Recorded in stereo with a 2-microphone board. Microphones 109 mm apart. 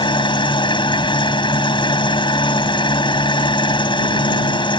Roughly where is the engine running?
Left.